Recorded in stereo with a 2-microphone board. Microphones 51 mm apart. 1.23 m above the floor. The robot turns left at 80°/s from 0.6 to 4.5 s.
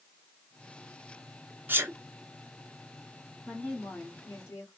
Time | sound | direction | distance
1.7 | a sneeze | 40° right (ahead or behind) | 0.9 m
3.5 | a woman speaking | 175° left | 2.5 m